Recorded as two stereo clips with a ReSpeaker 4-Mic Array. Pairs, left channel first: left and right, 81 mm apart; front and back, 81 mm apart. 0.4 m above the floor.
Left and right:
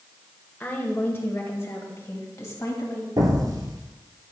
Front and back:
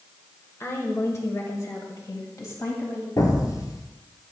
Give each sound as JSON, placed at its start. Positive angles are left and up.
{"t": 0.6, "sound": "a woman speaking", "azimuth_deg": 35, "distance_m": 1.5}
{"t": 3.2, "sound": "an explosion", "azimuth_deg": -45, "distance_m": 1.5}